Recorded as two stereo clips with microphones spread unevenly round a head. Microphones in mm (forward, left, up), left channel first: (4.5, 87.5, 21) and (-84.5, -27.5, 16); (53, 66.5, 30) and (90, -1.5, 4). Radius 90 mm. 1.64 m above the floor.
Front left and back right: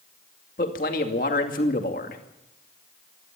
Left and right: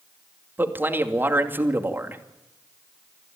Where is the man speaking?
5° left, 2.5 m.